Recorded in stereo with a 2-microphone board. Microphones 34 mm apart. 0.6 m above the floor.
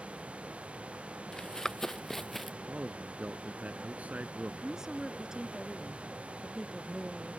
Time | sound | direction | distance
1.3 | running footsteps | 20° left (ahead or behind) | ?
2.7 | a man speaking | 45° right (ahead or behind) | ?
4.6 | a woman speaking | 15° right (ahead or behind) | ?